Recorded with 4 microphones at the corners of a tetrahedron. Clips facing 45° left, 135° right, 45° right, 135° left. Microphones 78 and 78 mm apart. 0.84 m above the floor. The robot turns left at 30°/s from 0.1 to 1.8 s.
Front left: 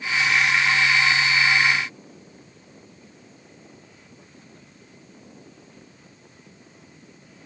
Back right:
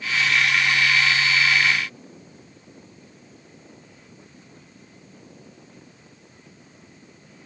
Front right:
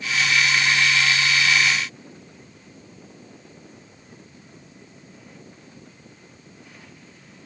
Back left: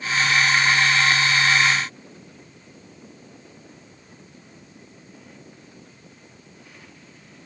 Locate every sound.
Only background noise.